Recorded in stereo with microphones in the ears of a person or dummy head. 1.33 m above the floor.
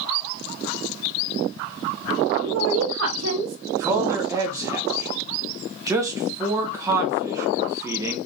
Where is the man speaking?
20° right (ahead or behind), 0.8 m.